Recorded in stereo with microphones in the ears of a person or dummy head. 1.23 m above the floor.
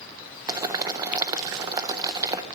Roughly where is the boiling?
Right.